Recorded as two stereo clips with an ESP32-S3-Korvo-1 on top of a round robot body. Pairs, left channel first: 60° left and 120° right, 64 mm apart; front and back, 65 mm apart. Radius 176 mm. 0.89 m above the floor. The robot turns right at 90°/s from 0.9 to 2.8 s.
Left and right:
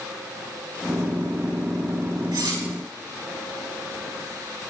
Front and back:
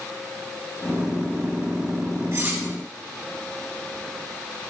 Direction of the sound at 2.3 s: 135° right.